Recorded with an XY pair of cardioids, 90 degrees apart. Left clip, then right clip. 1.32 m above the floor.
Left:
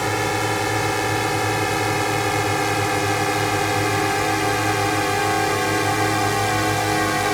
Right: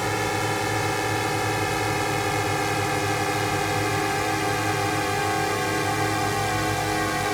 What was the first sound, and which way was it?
A drone, 20° left.